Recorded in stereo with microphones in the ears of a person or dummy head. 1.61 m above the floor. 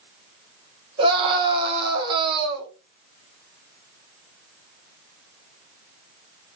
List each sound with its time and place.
1.0 s a scream: 25° right (ahead or behind), 1.8 m